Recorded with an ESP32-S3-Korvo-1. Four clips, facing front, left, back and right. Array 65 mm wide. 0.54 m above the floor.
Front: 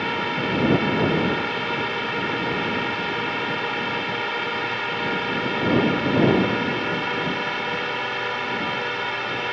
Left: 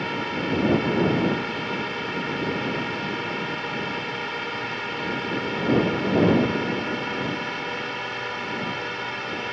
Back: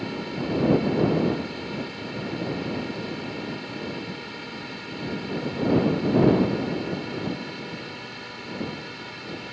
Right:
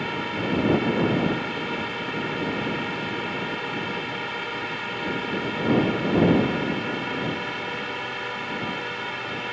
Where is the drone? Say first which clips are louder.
Left 1 dB, front 6 dB; 5° left.